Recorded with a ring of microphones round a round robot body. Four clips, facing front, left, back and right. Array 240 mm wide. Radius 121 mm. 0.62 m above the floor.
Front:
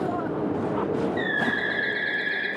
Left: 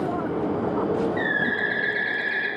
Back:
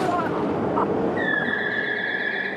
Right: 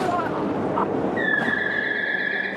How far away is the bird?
About 1.1 m.